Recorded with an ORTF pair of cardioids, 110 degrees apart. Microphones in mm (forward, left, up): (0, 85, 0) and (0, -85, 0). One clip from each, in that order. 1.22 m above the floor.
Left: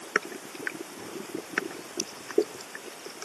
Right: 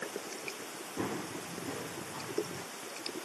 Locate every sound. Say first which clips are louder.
1.0 s running footsteps: even; 60° right